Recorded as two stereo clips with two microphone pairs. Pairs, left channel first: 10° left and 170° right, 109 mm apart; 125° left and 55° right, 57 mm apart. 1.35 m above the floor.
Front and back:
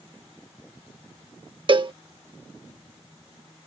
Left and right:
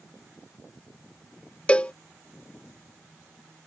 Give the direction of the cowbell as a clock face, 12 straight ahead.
6 o'clock.